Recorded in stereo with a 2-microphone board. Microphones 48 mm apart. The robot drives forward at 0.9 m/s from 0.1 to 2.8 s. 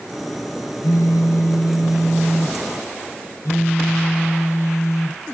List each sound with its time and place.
0.8 s a phone buzzing: 80° left, 5 m; by 5.2 s 60° left (ahead or behind), 5.5 m